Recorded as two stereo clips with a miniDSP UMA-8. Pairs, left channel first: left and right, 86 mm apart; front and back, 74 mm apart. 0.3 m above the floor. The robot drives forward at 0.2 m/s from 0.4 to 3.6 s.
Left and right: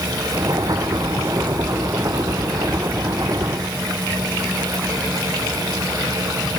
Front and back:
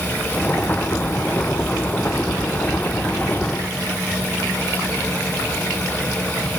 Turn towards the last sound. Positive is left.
No sound to turn to.